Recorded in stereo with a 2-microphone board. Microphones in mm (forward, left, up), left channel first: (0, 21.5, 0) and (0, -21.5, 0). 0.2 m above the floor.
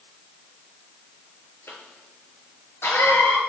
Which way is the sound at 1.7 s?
65° left (ahead or behind).